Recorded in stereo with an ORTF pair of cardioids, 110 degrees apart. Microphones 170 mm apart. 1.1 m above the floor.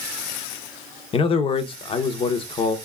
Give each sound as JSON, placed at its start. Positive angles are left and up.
{"t": 1.1, "sound": "a man speaking", "azimuth_deg": 35, "distance_m": 0.8}